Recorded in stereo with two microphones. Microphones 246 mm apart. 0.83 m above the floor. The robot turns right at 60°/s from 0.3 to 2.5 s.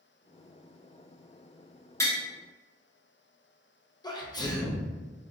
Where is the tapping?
10° left (ahead or behind), 0.9 m.